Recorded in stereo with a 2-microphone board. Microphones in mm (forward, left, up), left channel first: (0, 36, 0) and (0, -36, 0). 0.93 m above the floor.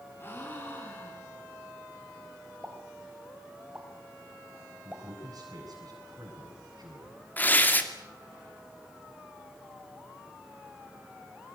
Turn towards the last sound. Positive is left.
turn(degrees=25)  # may be behind; listen again after turning